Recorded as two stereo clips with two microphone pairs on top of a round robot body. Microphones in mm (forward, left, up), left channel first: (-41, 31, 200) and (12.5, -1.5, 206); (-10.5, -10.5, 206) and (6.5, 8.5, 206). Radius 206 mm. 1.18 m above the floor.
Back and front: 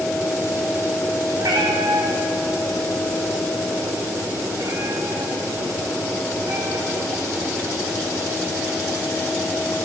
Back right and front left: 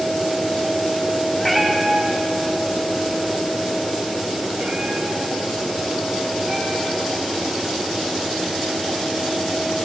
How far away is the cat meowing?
About 0.5 m.